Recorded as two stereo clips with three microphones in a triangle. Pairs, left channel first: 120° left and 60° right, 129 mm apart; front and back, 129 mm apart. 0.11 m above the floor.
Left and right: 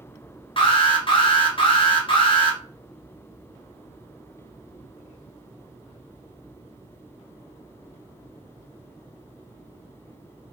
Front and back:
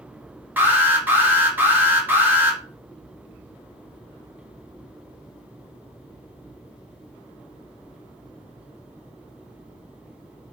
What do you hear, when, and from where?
0.6 s an alarm: 110° left, 1.4 m